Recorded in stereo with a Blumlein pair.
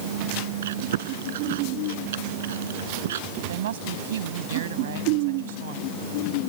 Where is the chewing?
60° right.